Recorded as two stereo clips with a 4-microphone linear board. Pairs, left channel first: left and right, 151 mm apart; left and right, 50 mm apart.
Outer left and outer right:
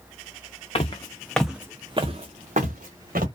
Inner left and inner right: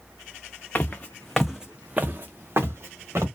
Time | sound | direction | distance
0.8 | footsteps | 40° left (ahead or behind) | 0.6 m